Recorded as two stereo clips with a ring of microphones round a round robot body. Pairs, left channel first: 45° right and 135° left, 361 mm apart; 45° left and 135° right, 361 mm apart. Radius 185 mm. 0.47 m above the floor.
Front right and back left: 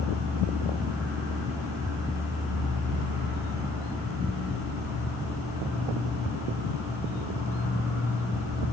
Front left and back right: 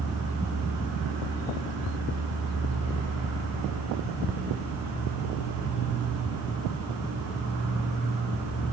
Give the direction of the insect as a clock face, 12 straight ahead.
5 o'clock.